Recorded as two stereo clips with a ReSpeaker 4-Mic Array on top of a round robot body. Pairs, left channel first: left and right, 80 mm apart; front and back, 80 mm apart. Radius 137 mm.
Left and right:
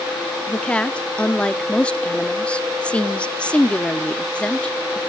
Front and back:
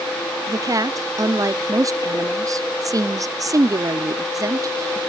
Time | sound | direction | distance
0.5 | a woman speaking | 160° left | 1.1 m